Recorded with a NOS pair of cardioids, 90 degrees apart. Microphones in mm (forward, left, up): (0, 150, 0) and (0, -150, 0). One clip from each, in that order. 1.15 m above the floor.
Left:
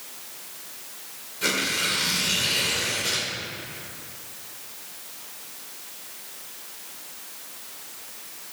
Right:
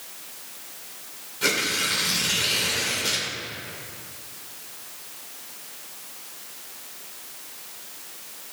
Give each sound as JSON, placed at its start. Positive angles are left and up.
{"t": 1.4, "sound": "tearing paper", "azimuth_deg": -10, "distance_m": 2.5}